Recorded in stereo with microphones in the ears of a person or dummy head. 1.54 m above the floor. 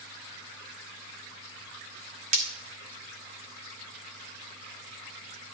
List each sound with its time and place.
2.3 s breaking glass: 35° right (ahead or behind), 1.8 m